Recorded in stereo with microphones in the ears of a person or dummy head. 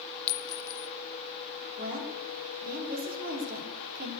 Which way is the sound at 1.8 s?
50° right (ahead or behind).